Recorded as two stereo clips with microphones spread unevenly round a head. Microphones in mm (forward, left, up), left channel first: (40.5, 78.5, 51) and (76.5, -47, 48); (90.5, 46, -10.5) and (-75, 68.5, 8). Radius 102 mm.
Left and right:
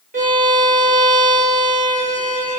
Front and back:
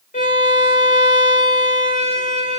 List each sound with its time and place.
0.1 s a violin: 65° right, 4 m